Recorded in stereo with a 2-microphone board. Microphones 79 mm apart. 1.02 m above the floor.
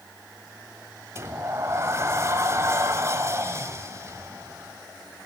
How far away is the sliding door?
About 1.4 m.